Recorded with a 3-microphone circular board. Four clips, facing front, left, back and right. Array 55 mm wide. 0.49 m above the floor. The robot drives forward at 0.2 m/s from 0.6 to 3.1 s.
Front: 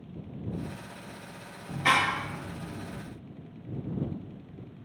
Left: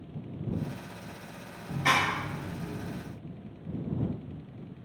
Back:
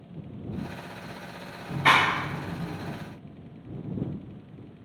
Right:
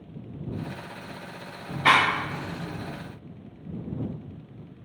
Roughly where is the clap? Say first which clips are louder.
Right 6 dB, back 4 dB; behind right.